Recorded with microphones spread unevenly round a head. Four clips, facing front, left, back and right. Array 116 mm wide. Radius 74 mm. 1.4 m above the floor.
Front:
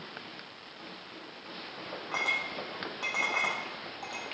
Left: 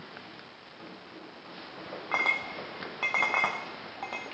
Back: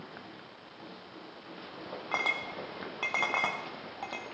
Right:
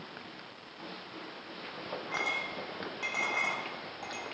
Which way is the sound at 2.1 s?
145° left.